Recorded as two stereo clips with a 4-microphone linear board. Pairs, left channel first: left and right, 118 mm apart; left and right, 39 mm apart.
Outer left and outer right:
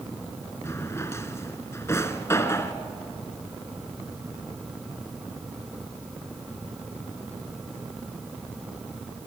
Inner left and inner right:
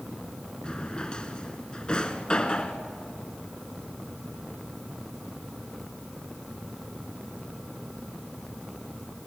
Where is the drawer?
25° left (ahead or behind), 1.5 m.